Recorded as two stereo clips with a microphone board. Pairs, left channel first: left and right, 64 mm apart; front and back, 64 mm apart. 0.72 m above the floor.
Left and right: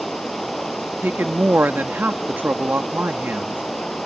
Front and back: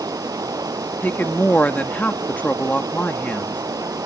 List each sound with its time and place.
0.0 s running water: straight behind
1.0 s a woman speaking: 50° right